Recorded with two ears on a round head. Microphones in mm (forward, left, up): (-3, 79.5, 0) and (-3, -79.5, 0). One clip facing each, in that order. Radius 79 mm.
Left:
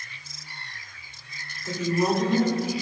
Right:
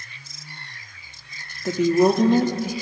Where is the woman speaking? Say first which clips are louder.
Right 7 dB; 50° right (ahead or behind), 0.8 m.